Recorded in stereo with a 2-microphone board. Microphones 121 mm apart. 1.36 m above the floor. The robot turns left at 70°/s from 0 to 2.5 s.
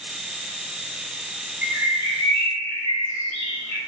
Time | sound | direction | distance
1.6 | a bird | 30° right | 1.3 m